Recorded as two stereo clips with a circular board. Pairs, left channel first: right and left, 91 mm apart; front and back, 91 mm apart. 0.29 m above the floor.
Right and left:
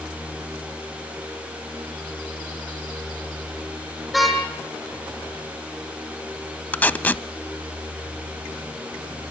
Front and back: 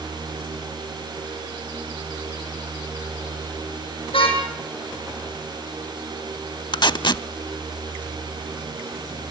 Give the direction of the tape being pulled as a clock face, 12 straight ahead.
1 o'clock.